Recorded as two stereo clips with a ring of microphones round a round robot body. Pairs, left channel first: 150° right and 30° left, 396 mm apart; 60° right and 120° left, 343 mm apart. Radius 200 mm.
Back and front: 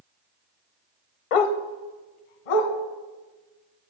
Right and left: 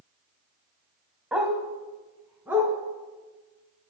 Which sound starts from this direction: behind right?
A dog barking, at 1.3 s.